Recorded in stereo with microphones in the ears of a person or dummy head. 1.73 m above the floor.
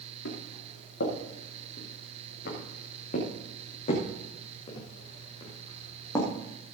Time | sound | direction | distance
0.2 | footsteps | 65° left (ahead or behind) | 6.5 m